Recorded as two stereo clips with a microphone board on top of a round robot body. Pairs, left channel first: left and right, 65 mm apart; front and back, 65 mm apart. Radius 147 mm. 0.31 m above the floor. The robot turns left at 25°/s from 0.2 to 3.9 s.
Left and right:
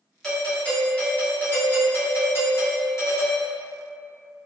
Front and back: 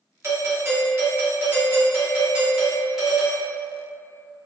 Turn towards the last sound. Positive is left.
turn(degrees=75)